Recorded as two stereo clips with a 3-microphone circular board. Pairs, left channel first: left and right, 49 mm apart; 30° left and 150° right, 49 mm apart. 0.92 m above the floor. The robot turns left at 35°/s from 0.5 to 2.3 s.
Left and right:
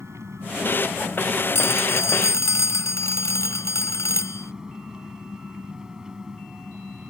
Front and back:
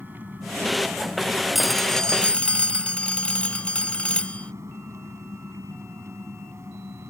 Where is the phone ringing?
120° left; by 4.5 s 95° left.